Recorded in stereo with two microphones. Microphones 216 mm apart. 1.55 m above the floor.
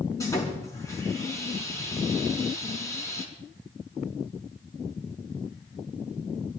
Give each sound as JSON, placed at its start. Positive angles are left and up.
{"t": 0.2, "sound": "sawing", "side_deg": 15, "distance_m": 5.5}